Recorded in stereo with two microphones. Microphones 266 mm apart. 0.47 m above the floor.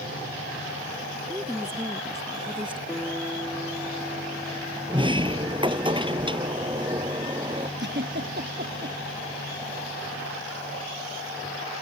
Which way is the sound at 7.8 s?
40° right (ahead or behind).